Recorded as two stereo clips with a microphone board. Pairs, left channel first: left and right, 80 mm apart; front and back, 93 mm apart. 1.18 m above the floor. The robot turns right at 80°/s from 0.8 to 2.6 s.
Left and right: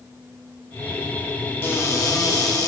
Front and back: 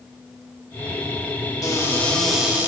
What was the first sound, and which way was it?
A cupboard door, 35° left.